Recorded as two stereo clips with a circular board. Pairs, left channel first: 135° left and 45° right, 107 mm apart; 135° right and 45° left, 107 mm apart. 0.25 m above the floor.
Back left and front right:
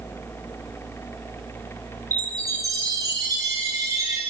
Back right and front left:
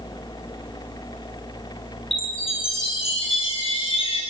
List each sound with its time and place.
2.1 s a chime: 105° right, 4 m